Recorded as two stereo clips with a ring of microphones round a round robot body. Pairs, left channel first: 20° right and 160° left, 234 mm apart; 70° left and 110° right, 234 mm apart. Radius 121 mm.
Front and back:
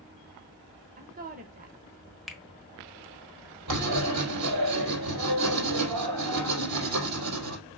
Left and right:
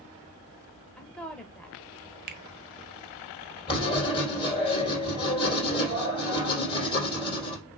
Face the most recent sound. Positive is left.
turn(degrees=140)